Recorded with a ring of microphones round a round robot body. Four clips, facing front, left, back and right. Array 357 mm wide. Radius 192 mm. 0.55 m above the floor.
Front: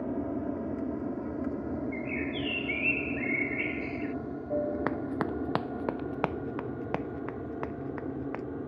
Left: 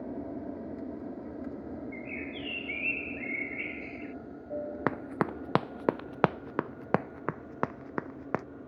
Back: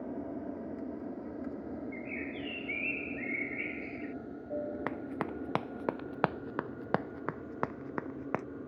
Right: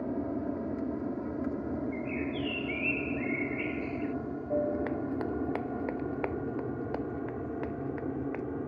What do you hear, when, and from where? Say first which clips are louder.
0.0 s an aircraft: right 5 dB, front 6 dB; 35° right; by 8.7 s 60° right
1.9 s a bird: right 6 dB, front 6 dB; straight ahead
4.9 s running footsteps: left 1 dB, front 6 dB; 70° left; by 8.4 s 115° left